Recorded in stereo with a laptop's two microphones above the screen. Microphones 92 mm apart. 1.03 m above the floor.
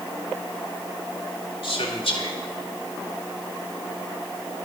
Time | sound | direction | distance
1.6 | a man speaking | 80° left | 3 m